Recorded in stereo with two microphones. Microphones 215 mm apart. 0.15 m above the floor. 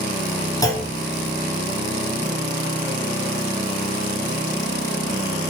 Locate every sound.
0.6 s a clunk: 15° left (ahead or behind), 1.0 m